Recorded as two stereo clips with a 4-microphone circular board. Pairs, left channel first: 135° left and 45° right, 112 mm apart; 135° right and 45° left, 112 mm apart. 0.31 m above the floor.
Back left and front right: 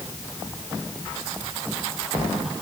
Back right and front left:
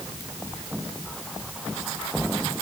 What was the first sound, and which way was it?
Only background noise.